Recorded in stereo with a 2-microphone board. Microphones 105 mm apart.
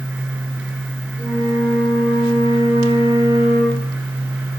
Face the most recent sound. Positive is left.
turn(degrees=-30)  # may be behind; listen again after turning